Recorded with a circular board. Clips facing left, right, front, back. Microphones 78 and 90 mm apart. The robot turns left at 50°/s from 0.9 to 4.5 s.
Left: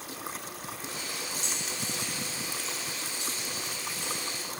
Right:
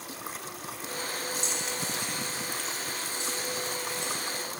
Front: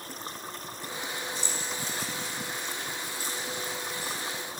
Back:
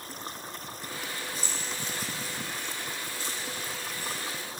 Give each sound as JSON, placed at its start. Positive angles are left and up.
{"t": 1.4, "sound": "keys jangling", "azimuth_deg": 140, "distance_m": 5.5}